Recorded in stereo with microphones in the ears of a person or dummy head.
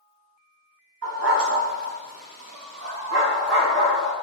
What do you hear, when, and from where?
1.0 s a dog barking: 70° right (ahead or behind), 2.5 m; by 4.1 s 60° right (ahead or behind), 4 m